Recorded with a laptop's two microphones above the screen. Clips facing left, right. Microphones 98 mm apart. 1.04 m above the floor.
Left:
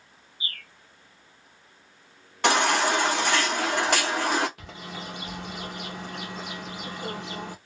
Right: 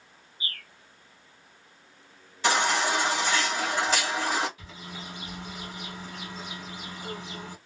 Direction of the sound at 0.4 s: 35° right (ahead or behind).